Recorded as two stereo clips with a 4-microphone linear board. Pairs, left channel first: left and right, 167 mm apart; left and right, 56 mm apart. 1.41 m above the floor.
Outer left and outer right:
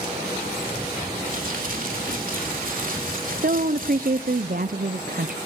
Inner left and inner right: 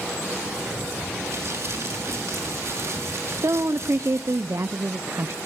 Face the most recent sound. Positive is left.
turn(degrees=-60)  # may be behind; listen again after turning